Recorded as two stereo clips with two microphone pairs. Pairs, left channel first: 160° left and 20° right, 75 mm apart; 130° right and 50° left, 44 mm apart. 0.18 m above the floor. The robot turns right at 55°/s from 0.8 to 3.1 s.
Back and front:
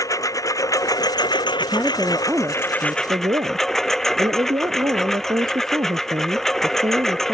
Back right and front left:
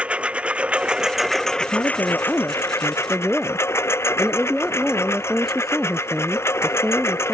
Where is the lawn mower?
115° left; by 7.3 s 120° right.